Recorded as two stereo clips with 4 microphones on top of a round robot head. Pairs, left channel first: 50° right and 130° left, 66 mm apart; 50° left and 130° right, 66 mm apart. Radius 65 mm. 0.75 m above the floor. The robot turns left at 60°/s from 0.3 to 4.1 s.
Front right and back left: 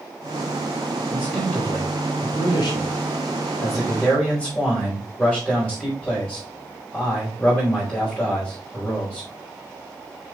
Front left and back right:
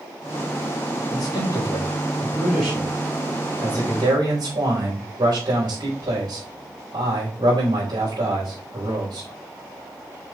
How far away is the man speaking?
About 4 m.